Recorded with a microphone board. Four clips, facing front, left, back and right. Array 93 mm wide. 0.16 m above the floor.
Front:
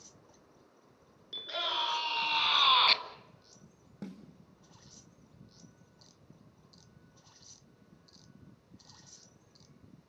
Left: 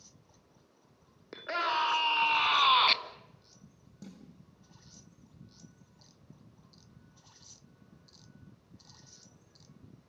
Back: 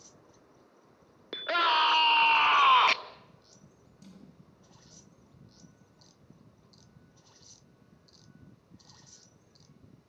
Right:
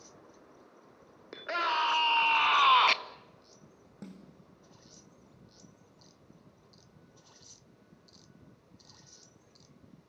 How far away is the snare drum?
About 5 m.